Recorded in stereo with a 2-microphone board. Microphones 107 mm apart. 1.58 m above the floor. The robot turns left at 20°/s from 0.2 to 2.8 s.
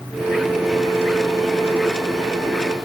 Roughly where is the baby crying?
I don't hear a baby crying.